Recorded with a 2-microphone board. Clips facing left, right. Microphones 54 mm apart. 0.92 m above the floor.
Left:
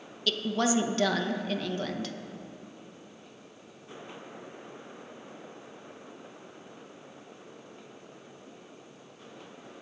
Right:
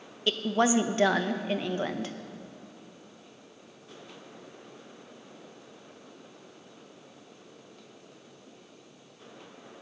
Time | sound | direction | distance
0.3 | a woman speaking | 25° right (ahead or behind) | 0.6 m